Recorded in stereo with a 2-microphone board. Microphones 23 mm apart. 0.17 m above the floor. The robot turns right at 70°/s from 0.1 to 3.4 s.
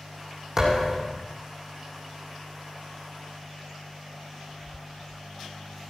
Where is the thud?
25° right, 4 m; by 1.2 s 20° left, 4 m.